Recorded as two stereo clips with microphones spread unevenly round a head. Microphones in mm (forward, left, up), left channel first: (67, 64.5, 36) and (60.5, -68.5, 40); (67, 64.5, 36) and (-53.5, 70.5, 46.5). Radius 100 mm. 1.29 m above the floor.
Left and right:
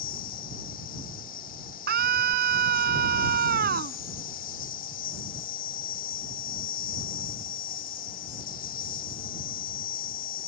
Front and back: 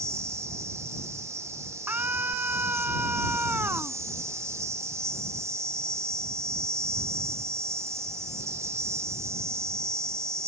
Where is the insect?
110° left.